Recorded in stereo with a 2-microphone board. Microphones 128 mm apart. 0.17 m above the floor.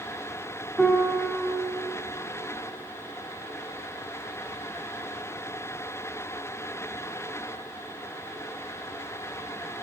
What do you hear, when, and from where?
0.8 s a piano: centre (ahead or behind), 1.1 m